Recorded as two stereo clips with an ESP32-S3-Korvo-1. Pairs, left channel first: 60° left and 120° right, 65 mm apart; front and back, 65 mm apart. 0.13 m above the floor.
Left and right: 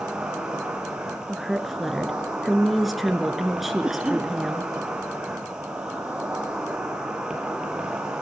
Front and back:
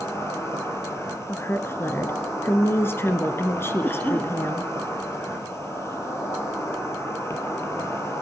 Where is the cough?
45° right, 2.5 m.